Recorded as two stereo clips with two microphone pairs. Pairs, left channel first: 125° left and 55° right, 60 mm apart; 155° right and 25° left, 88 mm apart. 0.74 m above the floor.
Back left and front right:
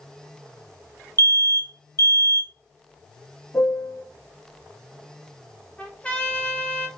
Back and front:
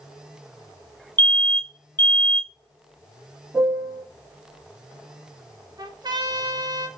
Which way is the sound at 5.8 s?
55° left.